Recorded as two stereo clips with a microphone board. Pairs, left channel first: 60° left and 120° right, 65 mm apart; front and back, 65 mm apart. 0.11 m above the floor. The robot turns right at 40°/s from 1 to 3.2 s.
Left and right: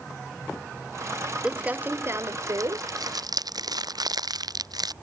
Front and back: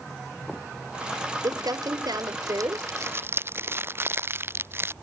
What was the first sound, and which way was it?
Crumpling, 165° left.